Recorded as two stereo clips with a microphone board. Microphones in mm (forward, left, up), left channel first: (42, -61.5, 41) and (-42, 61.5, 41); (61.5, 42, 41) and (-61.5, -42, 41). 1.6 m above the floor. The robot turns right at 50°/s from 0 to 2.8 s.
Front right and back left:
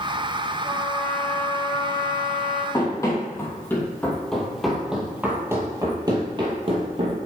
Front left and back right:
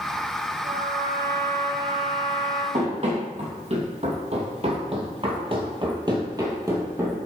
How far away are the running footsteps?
About 3 m.